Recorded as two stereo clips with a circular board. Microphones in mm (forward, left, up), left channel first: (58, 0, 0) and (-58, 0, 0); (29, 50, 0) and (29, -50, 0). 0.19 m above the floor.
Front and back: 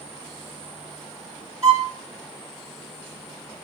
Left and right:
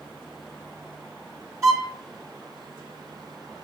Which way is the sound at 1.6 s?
130° right.